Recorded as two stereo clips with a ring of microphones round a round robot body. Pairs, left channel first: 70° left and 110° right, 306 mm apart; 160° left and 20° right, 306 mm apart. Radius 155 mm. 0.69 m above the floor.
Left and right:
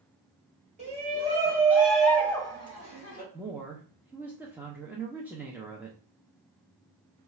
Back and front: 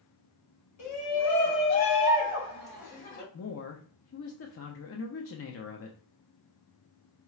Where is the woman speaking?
165° left, 0.6 m.